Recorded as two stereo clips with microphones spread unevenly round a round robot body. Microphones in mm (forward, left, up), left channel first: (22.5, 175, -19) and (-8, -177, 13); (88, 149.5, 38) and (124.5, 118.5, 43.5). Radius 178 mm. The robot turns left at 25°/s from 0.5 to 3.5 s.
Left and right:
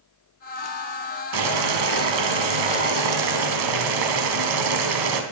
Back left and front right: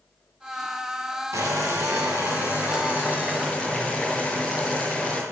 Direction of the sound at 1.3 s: 70° right.